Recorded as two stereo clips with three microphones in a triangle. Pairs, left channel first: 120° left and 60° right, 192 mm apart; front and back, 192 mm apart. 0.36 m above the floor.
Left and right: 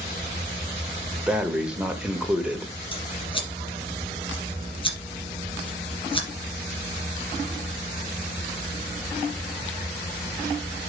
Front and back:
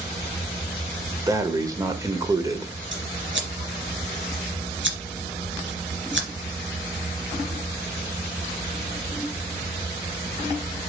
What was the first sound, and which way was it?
Breathing, 140° right.